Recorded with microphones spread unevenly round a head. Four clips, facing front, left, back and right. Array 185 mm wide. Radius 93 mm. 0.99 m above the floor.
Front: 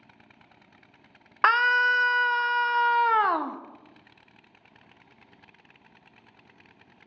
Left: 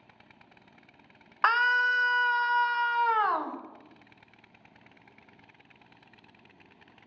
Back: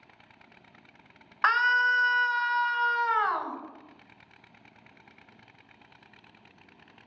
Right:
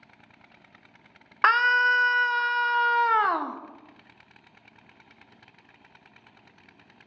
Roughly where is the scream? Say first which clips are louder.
Right 4 dB, front 3 dB; ahead right.